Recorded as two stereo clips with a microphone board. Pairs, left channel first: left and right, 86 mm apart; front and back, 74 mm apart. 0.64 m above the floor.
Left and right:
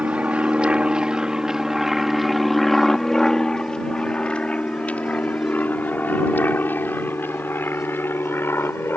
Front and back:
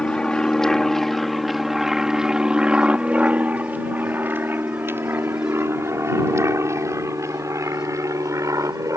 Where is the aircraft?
50° right; by 9.0 s 150° left.